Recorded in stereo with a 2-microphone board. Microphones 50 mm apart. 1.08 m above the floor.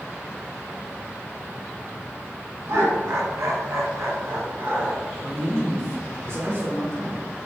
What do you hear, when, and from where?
2.7 s laughter: 60° right (ahead or behind), 1.0 m; by 5.0 s 45° right (ahead or behind), 1.1 m
5.2 s a man speaking: 55° right (ahead or behind), 1.1 m